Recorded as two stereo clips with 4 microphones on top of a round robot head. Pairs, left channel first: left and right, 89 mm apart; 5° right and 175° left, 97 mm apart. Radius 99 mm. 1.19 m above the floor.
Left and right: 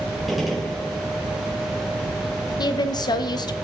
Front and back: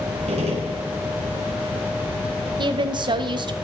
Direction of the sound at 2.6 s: 130° left.